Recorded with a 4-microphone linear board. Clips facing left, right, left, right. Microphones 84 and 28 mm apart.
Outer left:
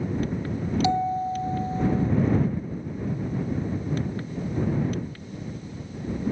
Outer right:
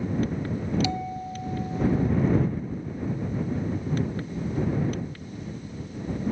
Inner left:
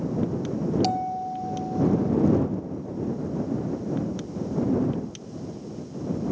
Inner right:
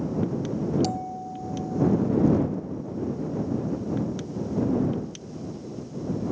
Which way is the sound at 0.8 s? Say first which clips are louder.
Outer left 7 dB, inner left 4 dB; 35° left (ahead or behind).